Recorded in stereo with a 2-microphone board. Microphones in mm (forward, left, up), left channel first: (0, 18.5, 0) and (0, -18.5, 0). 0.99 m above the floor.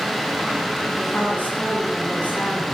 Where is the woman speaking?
45° left (ahead or behind), 7.5 m.